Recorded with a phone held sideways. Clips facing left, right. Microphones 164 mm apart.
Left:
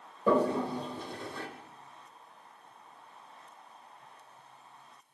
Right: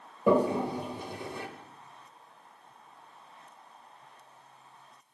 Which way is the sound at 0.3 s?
15° right (ahead or behind).